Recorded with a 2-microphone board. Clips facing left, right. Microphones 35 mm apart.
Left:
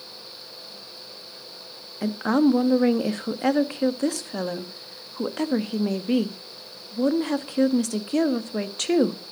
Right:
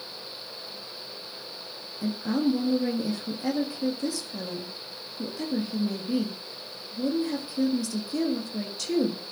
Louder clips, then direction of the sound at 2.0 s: Left 6 dB; 65° left (ahead or behind).